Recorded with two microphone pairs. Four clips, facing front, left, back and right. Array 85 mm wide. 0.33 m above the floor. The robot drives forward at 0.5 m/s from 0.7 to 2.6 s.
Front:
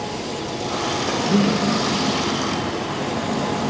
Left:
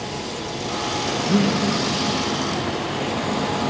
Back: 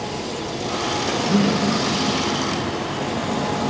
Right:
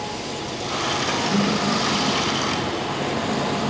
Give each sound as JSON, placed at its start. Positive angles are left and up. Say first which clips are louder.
{"t": 1.2, "sound": "breathing", "louder": "left 3 dB, even", "azimuth_deg": 40, "distance_m": 4.5}